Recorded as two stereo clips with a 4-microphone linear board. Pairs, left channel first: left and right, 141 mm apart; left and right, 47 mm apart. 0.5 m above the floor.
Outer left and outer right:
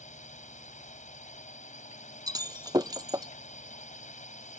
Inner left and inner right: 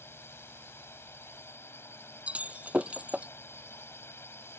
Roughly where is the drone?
Left.